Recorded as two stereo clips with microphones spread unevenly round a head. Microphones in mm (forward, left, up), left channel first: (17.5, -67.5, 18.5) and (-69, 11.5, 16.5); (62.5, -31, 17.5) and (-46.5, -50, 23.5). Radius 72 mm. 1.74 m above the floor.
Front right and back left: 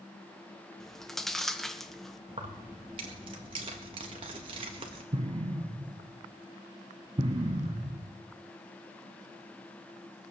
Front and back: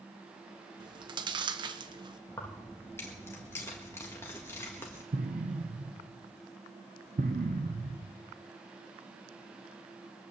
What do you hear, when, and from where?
0.8 s chewing: 130° right, 1.1 m
2.3 s keys jangling: 85° left, 1.6 m
5.1 s an explosion: straight behind, 1.3 m